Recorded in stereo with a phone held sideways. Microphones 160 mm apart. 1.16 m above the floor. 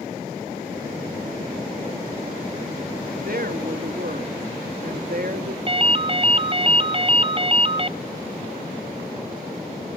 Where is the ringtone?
35° right (ahead or behind), 0.7 m.